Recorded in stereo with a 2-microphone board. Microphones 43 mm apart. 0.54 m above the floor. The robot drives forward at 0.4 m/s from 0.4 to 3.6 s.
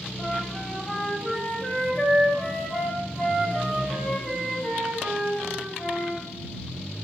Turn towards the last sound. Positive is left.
turn(degrees=5)  # may be behind; listen again after turning